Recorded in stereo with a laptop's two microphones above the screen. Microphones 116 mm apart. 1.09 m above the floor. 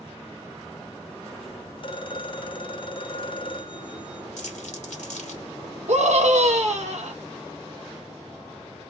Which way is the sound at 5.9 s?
65° right (ahead or behind).